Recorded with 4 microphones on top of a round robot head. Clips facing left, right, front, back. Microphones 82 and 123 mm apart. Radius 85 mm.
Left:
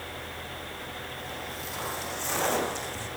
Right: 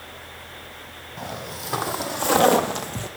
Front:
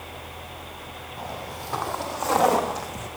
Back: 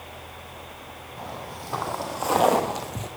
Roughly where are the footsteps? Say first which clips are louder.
Right 4 dB, front 1 dB; right.